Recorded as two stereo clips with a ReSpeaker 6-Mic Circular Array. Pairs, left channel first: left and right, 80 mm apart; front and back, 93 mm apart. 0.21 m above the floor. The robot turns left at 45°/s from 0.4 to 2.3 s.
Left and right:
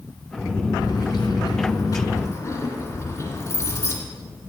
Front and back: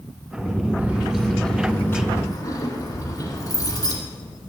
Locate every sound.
0.8 s keys jangling: 110° left, 2.0 m; by 4.0 s 40° left, 2.0 m